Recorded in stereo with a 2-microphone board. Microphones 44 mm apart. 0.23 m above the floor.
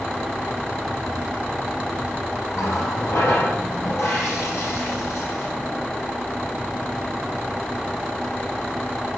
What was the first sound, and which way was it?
A running tap, 70° left (ahead or behind).